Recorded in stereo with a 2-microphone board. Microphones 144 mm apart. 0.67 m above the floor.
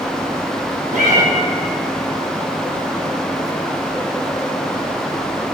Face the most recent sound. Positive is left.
turn(degrees=-70)  # may be behind; listen again after turning